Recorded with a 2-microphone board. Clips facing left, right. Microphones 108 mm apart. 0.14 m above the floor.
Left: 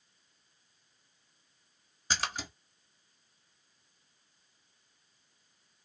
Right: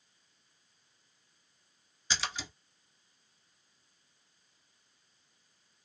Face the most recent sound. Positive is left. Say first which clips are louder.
# left 2 dB
turn(degrees=45)  # may be behind; listen again after turning